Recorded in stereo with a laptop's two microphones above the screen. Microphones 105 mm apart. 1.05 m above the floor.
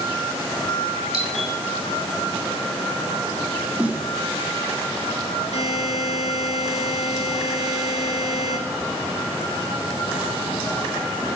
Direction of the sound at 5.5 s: 70° left (ahead or behind).